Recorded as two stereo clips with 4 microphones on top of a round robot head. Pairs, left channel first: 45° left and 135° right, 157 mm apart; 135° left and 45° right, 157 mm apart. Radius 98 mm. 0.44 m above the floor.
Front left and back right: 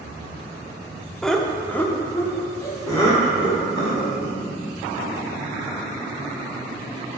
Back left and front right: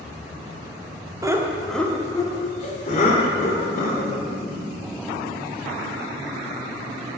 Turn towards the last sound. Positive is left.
turn(degrees=110)